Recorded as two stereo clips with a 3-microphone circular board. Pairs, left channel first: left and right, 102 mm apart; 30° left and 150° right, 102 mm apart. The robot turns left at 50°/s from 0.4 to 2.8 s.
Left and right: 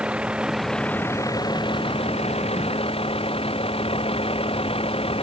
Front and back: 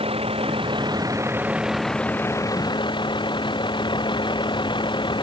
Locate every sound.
0.0 s a vehicle: 170° right; by 5.2 s 70° left